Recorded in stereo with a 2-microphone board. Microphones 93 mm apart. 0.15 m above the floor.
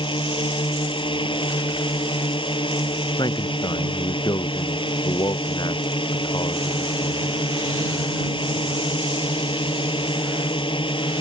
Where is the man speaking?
50° left (ahead or behind).